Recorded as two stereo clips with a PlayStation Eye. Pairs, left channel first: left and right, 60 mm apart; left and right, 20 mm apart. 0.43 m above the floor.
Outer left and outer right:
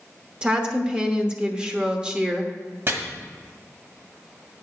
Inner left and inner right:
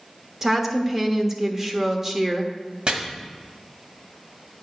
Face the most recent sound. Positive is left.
turn(degrees=-45)  # may be behind; listen again after turning